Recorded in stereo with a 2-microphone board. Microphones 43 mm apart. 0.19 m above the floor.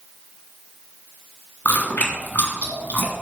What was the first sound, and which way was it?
Chewing, 40° left (ahead or behind).